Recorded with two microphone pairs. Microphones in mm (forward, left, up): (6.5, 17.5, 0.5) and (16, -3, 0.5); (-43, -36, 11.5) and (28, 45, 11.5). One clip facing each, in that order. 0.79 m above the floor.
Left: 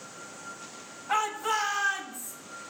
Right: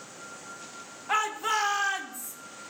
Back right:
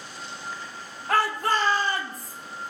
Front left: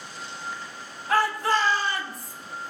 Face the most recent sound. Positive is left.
turn(degrees=-85)